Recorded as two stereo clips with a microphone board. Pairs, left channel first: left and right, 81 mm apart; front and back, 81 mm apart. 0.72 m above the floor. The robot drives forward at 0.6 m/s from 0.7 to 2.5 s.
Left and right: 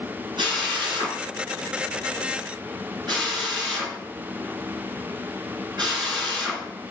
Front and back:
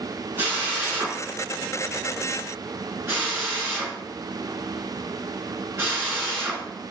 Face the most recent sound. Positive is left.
turn(degrees=-125)